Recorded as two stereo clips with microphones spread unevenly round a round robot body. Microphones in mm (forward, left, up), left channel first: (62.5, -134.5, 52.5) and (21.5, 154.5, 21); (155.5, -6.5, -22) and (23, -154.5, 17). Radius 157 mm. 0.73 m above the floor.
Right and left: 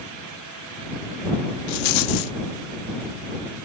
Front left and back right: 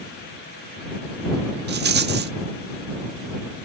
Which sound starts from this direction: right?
A rattle, at 1.7 s.